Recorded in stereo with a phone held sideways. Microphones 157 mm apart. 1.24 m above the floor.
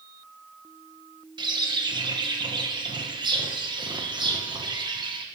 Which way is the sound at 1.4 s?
30° right (ahead or behind).